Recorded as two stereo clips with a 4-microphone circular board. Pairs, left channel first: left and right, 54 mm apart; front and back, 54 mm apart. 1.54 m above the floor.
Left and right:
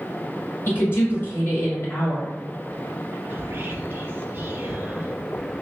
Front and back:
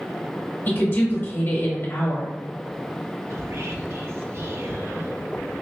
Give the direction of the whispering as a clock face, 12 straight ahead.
5 o'clock.